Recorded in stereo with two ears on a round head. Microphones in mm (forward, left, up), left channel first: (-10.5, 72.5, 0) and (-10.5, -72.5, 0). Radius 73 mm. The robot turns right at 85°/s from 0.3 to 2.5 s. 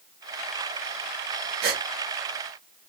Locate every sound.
1.6 s a gasp: 70° right (ahead or behind), 0.7 m; by 1.8 s 50° right (ahead or behind), 0.7 m